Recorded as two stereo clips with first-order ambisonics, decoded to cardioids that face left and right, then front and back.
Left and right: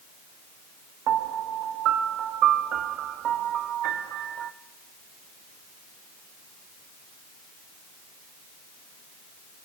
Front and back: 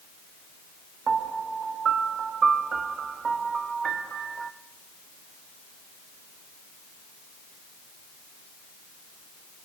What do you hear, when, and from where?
1.1 s a piano: 120° right, 0.6 m